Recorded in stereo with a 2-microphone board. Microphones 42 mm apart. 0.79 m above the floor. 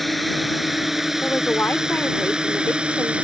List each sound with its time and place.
0.0 s a drone: centre (ahead or behind); by 3.2 s 25° right (ahead or behind)
1.2 s a woman speaking: 50° left (ahead or behind)